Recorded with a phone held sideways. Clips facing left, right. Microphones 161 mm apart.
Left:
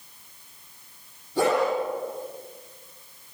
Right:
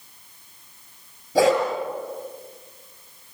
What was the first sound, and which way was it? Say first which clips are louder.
A dog barking: right 5 dB; 80° right.